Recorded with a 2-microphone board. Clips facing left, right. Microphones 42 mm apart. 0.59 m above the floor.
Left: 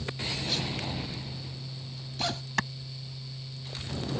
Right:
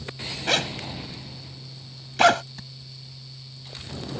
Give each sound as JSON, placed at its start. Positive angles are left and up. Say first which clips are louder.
{"t": 0.5, "sound": "a zipper", "louder": "right 12 dB", "side_deg": -70}
{"t": 2.6, "sound": "a clap", "louder": "left 15 dB", "side_deg": 75}